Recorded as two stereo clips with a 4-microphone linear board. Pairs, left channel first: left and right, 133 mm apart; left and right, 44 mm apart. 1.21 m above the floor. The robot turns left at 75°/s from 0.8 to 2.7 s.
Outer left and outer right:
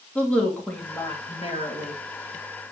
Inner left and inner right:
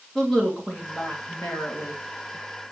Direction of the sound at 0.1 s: 170° left.